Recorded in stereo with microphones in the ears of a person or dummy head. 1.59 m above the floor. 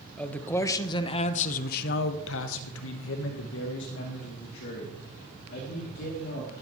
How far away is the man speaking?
About 1.4 m.